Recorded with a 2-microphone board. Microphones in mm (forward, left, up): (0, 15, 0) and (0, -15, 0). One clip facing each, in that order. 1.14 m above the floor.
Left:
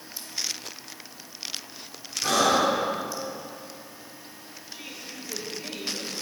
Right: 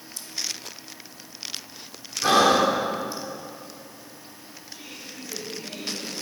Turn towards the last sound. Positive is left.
turn(degrees=20)  # may be behind; listen again after turning